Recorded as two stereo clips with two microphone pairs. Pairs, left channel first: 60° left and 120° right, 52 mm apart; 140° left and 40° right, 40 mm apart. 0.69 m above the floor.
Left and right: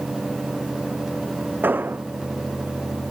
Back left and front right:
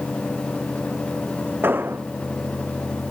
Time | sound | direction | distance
1.6 | an explosion | 70° right | ?